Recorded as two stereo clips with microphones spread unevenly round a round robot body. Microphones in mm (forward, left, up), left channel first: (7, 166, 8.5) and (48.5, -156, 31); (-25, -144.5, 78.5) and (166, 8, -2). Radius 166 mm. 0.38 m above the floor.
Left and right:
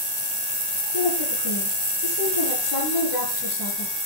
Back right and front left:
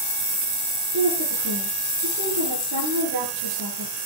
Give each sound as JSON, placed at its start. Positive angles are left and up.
{"t": 0.9, "sound": "a woman speaking", "azimuth_deg": 65, "distance_m": 7.5}